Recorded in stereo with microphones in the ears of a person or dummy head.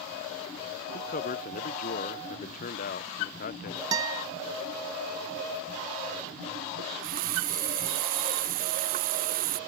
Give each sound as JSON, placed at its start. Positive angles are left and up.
{"t": 0.9, "sound": "a man speaking", "side_deg": 40}
{"t": 3.9, "sound": "a guitar", "side_deg": -20}
{"t": 6.8, "sound": "a running tap", "side_deg": -45}